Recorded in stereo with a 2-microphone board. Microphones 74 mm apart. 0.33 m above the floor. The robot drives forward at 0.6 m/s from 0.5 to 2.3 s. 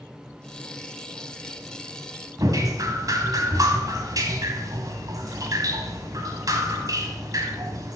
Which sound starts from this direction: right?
Dripping, at 2.4 s.